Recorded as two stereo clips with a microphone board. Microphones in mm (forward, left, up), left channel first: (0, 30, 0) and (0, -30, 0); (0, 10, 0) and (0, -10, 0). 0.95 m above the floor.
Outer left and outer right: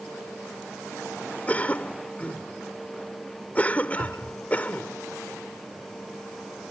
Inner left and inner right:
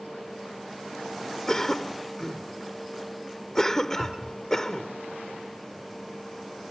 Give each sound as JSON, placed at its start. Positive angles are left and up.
{"t": 1.5, "sound": "a cough", "side_deg": 25}
{"t": 4.0, "sound": "a cupboard door", "side_deg": -75}